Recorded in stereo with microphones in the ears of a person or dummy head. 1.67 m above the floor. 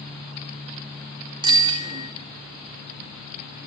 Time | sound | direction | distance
1.4 | a bicycle bell | 25° right (ahead or behind) | 2 m